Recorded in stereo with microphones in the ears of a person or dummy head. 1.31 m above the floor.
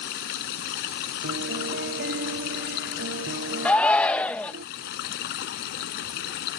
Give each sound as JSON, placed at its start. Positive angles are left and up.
{"t": 0.0, "sound": "running water", "side_deg": 65}
{"t": 1.2, "sound": "a piano", "side_deg": -70}
{"t": 3.6, "sound": "a shout", "side_deg": 5}